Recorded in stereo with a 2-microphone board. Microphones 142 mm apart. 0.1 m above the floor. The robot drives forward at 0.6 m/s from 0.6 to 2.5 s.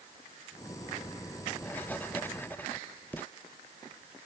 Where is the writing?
10° left (ahead or behind).